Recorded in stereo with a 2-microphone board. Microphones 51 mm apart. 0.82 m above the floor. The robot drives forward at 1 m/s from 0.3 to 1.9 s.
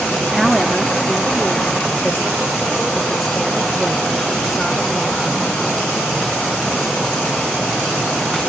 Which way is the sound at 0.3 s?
5° right (ahead or behind).